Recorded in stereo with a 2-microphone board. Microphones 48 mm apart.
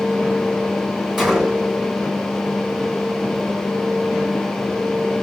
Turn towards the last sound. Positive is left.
turn(degrees=-10)  # may be behind; listen again after turning